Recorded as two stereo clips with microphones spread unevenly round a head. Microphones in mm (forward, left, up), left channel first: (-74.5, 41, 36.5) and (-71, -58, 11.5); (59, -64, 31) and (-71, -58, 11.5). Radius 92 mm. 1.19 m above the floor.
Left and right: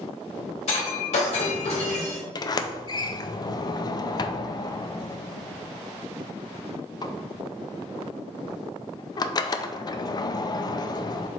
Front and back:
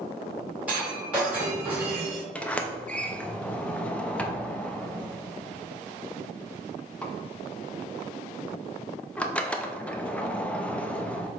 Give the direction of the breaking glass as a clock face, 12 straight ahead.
9 o'clock.